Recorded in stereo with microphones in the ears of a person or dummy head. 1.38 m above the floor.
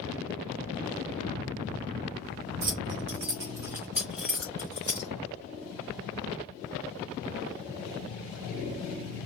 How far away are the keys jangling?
About 0.9 m.